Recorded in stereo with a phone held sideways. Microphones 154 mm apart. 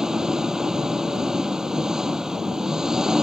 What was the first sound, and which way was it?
An engine running, 5° right (ahead or behind).